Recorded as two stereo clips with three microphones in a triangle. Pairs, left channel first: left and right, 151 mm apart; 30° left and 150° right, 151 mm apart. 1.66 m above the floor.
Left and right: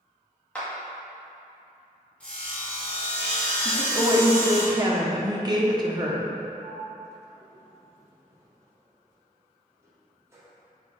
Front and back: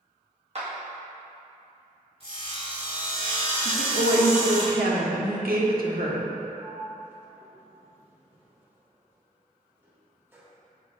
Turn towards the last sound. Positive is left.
turn(degrees=-115)